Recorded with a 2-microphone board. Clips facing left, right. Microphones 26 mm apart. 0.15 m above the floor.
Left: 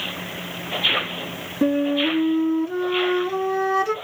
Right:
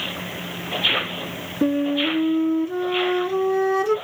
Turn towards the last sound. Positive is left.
turn(degrees=15)  # may be behind; listen again after turning